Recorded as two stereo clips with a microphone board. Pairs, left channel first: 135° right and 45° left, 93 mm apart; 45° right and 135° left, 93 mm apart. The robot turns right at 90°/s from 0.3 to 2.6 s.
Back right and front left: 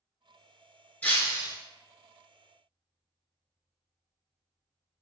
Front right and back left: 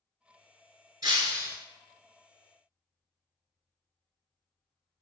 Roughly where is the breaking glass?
Behind.